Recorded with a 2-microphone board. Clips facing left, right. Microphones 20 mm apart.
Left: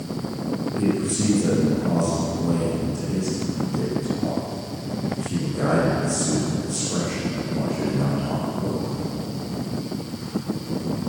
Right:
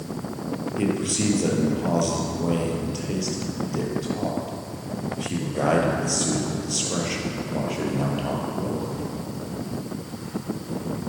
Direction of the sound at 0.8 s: 50° right (ahead or behind).